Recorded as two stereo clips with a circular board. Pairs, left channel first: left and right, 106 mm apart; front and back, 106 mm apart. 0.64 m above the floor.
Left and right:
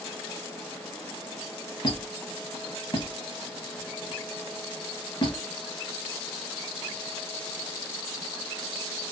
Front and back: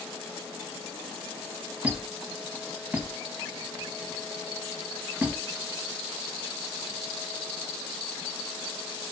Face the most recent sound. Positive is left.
turn(degrees=110)